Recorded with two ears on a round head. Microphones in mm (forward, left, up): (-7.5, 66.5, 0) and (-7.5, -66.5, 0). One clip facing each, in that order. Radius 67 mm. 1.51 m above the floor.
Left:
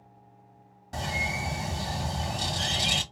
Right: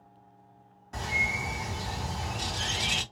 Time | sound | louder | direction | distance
0.9 | a bird | left 2 dB | 40° left (ahead or behind) | 1.7 m